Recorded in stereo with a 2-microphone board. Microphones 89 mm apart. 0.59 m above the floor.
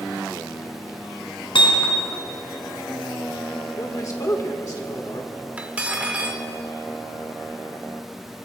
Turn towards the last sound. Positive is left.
turn(degrees=-15)  # may be behind; listen again after turning